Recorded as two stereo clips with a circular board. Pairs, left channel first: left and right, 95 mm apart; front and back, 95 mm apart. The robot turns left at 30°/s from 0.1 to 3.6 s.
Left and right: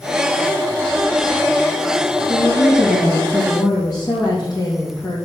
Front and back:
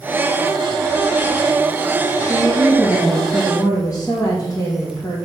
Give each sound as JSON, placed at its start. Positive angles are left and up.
{"t": 2.3, "sound": "a woman speaking", "azimuth_deg": 95, "distance_m": 2.5}